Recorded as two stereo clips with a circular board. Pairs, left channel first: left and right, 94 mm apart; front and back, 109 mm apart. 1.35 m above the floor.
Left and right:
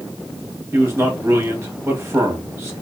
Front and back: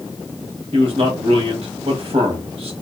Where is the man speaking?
155° right, 1.1 m.